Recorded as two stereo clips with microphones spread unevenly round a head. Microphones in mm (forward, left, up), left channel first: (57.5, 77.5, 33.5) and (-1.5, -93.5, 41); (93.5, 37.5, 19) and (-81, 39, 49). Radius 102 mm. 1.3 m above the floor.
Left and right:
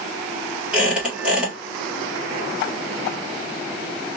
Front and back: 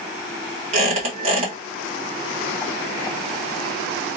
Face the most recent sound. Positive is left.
turn(degrees=170)